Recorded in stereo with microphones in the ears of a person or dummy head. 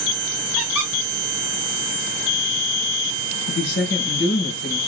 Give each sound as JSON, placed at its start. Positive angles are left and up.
{"t": 0.6, "sound": "a squeak", "side_deg": -5, "distance_m": 1.4}
{"t": 3.5, "sound": "a woman speaking", "side_deg": 60, "distance_m": 2.5}